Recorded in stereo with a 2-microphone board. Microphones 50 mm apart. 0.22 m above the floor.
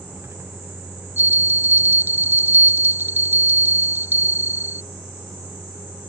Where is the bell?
45° right (ahead or behind).